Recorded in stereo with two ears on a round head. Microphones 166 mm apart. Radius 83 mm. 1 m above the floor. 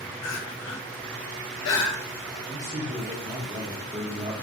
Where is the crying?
75° left (ahead or behind), 0.7 m.